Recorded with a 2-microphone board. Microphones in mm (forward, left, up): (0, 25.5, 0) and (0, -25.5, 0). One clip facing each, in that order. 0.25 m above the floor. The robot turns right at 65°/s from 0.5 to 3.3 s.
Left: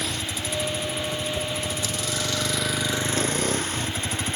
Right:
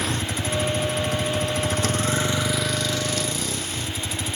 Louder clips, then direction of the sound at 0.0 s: Right 3 dB; 140° right.